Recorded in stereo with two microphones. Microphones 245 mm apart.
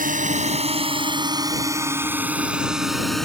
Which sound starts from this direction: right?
A drone, at 0.0 s.